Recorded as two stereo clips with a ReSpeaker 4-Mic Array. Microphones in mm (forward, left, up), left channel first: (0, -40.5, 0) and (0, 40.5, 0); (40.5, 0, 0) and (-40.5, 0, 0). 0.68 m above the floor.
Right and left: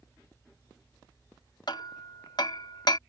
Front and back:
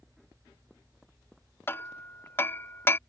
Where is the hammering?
60° right.